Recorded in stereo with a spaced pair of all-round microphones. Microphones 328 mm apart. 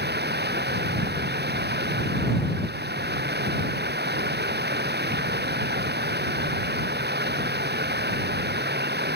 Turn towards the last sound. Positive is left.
turn(degrees=-30)  # may be behind; listen again after turning